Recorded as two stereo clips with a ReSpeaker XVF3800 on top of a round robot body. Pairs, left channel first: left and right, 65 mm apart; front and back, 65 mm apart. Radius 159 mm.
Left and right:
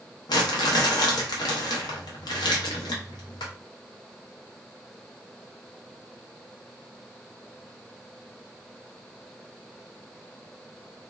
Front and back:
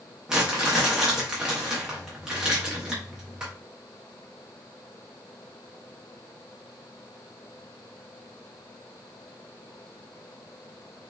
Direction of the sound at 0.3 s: 100° left.